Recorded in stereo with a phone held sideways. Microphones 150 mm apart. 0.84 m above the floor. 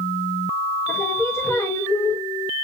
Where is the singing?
15° left (ahead or behind), 0.8 m.